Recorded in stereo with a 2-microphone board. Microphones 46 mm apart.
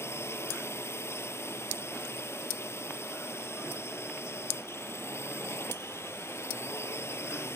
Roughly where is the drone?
Left.